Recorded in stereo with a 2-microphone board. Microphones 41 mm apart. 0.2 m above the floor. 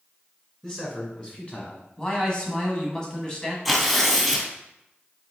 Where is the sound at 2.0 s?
20° left (ahead or behind), 1.1 m.